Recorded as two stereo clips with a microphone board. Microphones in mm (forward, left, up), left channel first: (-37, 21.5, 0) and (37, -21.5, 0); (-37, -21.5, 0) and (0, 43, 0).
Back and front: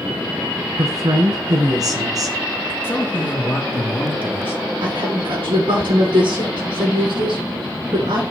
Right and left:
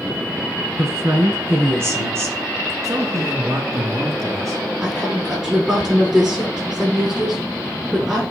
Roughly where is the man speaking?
Left.